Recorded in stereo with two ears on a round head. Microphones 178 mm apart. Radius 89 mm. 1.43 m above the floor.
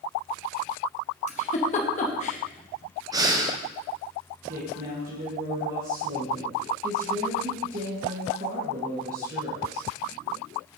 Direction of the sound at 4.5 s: 45° right (ahead or behind).